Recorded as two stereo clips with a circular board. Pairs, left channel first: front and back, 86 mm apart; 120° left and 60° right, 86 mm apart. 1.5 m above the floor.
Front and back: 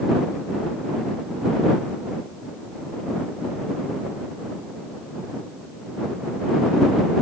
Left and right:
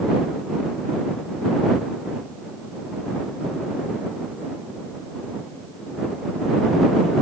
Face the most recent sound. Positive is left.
No sound to turn to.